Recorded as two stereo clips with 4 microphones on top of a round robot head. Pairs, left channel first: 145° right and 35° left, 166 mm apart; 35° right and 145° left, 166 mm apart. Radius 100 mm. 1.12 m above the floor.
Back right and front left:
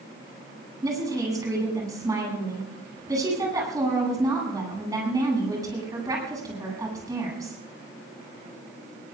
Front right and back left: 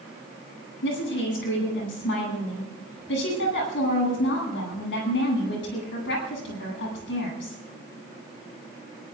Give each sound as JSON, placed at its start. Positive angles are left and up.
{"t": 0.8, "sound": "a woman speaking", "azimuth_deg": -35, "distance_m": 9.0}